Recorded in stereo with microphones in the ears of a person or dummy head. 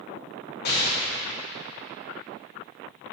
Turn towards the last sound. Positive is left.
turn(degrees=55)  # may be behind; listen again after turning